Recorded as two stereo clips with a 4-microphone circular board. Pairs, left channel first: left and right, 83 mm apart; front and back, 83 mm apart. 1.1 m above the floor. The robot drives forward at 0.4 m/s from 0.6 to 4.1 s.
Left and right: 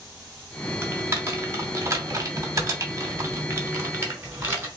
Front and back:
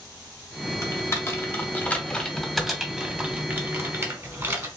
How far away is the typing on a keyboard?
About 1.1 m.